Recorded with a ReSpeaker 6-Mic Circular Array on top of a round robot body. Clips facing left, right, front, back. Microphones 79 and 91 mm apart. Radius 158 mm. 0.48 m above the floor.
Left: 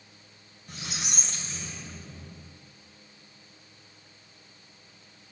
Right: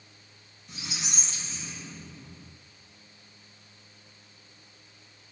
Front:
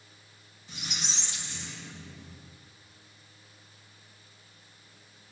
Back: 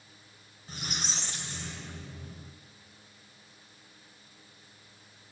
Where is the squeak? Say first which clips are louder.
Left 1 dB, back 2 dB; 130° left, 1.7 m.